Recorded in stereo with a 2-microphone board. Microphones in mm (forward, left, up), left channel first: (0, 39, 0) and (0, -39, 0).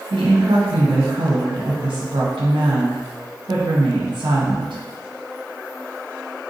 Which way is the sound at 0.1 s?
85° right.